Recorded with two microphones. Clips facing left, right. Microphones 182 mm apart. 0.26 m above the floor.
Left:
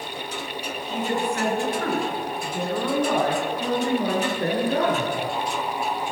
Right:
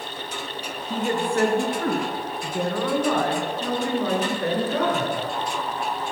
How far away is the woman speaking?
About 3 m.